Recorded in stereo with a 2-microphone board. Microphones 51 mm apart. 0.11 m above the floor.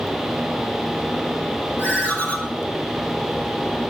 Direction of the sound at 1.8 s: 25° left (ahead or behind).